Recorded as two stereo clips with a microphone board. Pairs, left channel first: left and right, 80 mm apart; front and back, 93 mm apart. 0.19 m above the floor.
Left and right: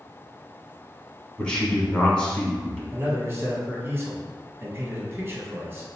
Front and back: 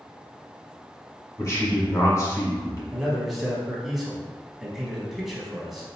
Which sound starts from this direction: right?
A man speaking, at 2.9 s.